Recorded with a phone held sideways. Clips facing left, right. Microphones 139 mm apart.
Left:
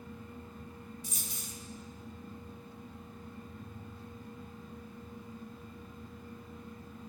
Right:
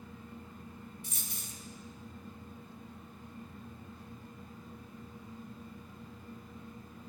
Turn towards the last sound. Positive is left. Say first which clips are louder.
# left 2 dB
turn(degrees=-55)  # may be behind; listen again after turning